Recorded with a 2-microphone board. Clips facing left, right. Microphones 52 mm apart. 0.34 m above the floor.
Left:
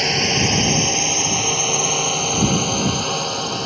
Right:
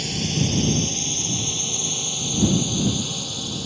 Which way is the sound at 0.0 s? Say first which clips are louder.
Left 6 dB; 60° left (ahead or behind).